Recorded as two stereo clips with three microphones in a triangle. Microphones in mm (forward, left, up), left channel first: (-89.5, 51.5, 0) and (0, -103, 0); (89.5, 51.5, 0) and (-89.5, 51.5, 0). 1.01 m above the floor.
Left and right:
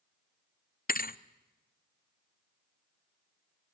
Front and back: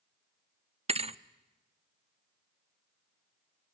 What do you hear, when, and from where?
0.9 s a thud: 130° left, 0.6 m